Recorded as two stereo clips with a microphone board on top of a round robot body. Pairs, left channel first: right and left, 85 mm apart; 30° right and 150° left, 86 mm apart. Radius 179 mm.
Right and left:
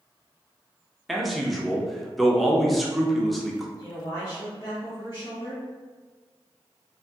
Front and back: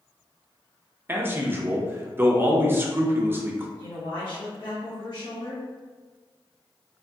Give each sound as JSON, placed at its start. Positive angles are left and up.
{"t": 1.1, "sound": "a man speaking", "azimuth_deg": 180, "distance_m": 0.7}
{"t": 3.8, "sound": "a man speaking", "azimuth_deg": -55, "distance_m": 1.1}